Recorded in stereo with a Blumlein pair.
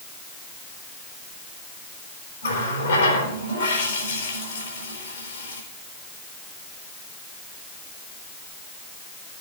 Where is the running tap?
65° left, 3.5 m.